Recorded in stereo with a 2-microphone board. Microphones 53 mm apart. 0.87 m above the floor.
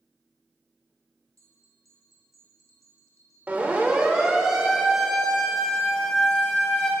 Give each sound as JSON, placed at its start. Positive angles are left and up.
{"t": 1.4, "sound": "a bell", "side_deg": -80, "distance_m": 3.5}
{"t": 3.5, "sound": "a siren", "side_deg": -30, "distance_m": 4.0}